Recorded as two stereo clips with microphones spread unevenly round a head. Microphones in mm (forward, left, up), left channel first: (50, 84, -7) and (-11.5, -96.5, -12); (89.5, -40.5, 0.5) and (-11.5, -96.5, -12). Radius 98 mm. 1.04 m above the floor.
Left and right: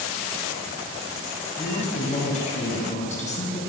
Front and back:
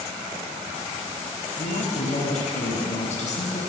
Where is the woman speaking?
15° left, 9.5 m.